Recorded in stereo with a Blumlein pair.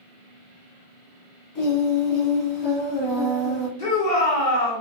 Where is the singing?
40° left, 1.2 m.